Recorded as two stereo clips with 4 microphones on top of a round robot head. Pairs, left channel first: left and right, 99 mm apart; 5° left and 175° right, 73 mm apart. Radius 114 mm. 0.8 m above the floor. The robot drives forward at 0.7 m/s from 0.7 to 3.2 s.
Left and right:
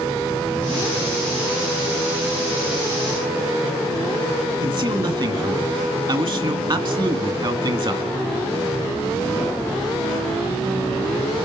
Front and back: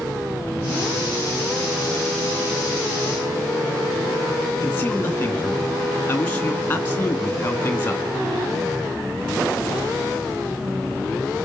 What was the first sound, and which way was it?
A man speaking, 60° right.